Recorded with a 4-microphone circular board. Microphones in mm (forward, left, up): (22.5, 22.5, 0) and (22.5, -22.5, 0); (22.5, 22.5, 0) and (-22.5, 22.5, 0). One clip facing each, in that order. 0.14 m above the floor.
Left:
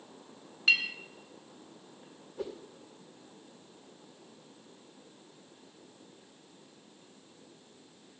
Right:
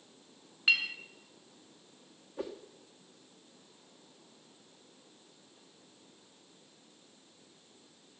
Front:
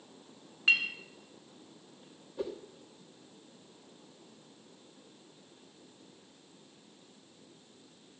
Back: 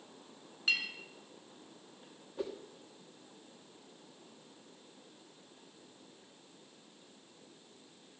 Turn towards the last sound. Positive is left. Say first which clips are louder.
# left 1 dB, front 2 dB
turn(degrees=-110)